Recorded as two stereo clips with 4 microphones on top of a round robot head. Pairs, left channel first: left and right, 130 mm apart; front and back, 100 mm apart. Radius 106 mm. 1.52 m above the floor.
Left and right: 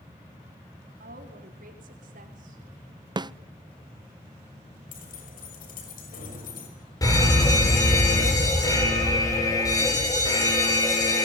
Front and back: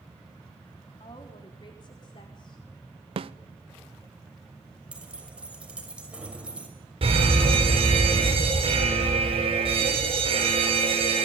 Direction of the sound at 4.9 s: 100° left.